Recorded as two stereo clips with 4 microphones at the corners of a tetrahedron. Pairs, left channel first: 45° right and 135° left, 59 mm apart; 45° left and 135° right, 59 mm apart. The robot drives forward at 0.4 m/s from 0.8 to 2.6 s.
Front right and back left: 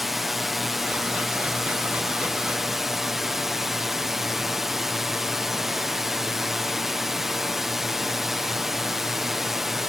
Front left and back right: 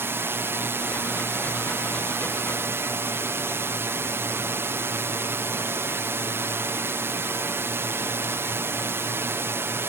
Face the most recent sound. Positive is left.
turn(degrees=-140)